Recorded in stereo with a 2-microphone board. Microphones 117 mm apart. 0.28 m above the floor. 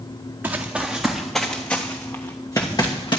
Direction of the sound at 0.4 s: 15° right (ahead or behind).